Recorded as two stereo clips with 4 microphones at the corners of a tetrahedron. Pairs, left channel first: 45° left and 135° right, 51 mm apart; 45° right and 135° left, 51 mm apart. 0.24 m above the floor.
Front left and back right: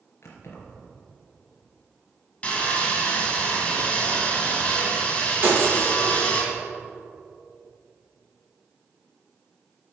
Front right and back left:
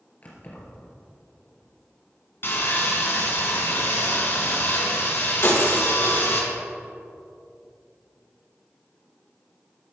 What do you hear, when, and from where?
0.2 s keys jangling: 10° left, 2.5 m
2.4 s sawing: 15° right, 2 m
5.4 s breaking glass: 85° right, 3.5 m